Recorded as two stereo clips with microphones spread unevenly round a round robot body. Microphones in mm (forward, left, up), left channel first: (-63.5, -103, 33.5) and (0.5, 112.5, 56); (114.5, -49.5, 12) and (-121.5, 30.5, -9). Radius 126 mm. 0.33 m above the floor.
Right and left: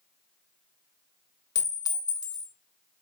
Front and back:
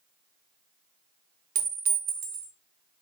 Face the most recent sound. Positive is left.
turn(degrees=-165)